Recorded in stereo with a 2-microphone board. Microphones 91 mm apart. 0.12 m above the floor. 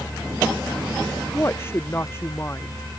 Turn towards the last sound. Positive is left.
turn(degrees=25)  # may be behind; listen again after turning